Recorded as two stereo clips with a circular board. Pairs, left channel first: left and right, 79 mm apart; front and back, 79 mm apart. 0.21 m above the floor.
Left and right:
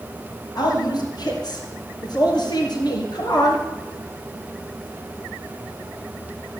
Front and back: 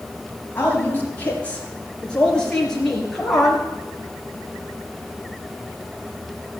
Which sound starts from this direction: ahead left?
A woman speaking, at 0.6 s.